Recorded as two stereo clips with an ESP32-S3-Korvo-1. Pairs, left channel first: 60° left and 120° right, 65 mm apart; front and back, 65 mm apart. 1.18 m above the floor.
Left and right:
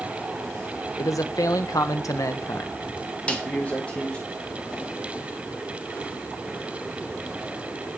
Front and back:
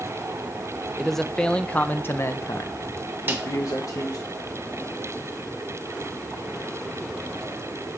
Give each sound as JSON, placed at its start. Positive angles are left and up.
{"t": 1.0, "sound": "a man speaking", "azimuth_deg": 90, "distance_m": 0.9}
{"t": 3.3, "sound": "a snare drum", "azimuth_deg": 130, "distance_m": 1.3}